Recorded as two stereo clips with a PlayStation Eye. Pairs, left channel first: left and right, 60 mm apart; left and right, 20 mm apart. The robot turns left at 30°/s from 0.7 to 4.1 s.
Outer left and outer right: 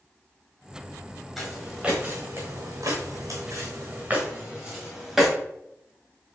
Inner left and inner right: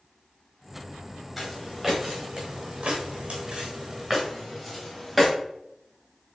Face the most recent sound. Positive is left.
turn(degrees=-5)  # may be behind; listen again after turning